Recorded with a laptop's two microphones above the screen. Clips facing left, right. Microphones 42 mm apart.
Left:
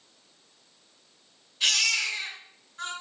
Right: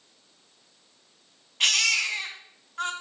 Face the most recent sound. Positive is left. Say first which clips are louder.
# right 2 dB
turn(degrees=-75)  # may be behind; listen again after turning